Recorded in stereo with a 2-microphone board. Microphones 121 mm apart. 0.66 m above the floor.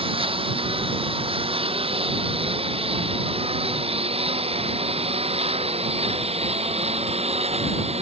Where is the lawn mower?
50° right (ahead or behind); by 8.0 s 60° right (ahead or behind).